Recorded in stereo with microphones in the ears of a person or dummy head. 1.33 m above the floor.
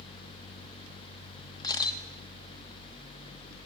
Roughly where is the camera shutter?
Left.